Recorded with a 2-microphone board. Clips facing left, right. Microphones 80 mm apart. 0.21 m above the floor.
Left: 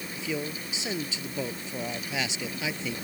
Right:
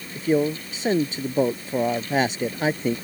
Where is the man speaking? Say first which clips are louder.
Right 13 dB; 45° right (ahead or behind).